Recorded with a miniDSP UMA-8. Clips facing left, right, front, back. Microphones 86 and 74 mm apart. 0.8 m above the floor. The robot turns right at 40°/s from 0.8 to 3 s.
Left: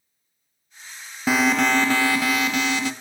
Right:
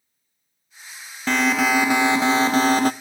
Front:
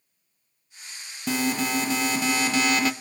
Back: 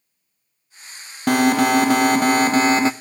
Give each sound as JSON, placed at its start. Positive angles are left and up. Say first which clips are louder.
{"t": 1.3, "sound": "an alarm", "louder": "even, back 10 dB", "azimuth_deg": 170, "distance_m": 0.6}